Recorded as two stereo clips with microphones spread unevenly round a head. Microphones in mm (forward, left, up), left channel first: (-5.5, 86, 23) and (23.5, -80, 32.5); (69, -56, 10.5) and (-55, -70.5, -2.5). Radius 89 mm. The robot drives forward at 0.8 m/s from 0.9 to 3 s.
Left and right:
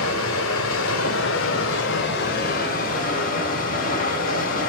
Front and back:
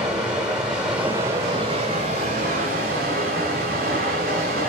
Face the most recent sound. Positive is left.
turn(degrees=145)